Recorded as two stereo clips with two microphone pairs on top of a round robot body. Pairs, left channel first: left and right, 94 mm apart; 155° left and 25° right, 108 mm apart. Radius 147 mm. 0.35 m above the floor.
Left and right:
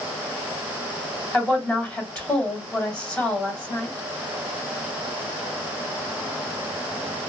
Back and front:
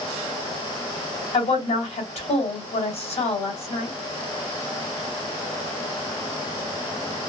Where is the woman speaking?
160° left, 2.5 m.